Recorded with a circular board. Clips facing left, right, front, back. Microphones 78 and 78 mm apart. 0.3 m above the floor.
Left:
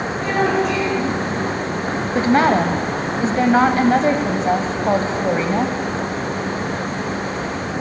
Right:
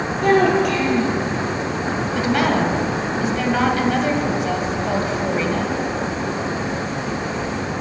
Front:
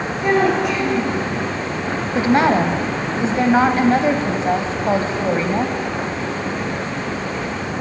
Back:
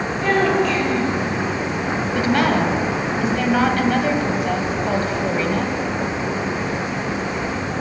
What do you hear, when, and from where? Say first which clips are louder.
0.2 s a child speaking: right 3 dB, front 1 dB; 70° right, 4.5 m
2.1 s a woman speaking: left 4 dB, front 4 dB; 50° left, 1.4 m